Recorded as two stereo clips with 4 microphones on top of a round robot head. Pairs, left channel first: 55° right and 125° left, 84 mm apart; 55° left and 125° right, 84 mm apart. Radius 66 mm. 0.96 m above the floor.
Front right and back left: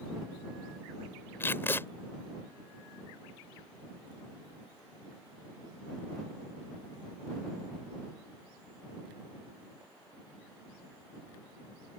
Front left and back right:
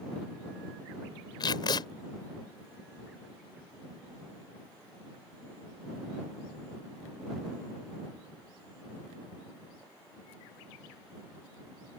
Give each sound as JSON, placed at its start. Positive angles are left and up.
{"t": 1.4, "sound": "tape being pulled", "azimuth_deg": 15}